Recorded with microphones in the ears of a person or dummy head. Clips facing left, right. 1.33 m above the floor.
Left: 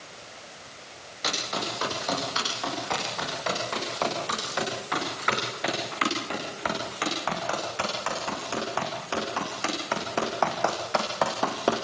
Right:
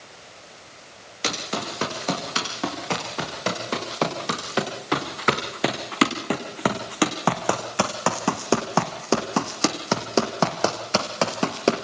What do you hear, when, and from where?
1.2 s running footsteps: 40° right (ahead or behind), 8.5 m; by 11.8 s 35° right (ahead or behind), 3.5 m